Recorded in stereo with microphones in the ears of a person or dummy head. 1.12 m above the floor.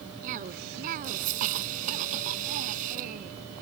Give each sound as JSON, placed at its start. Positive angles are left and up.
{"t": 0.2, "sound": "a cough", "side_deg": -40}